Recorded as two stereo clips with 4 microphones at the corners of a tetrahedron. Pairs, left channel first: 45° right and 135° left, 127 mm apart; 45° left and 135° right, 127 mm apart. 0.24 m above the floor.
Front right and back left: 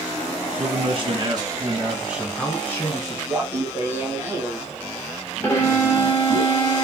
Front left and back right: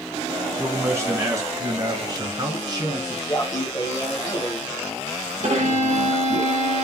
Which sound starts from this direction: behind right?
A violin, at 5.4 s.